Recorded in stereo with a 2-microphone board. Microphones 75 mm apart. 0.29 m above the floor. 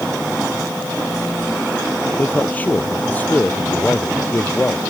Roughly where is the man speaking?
Left.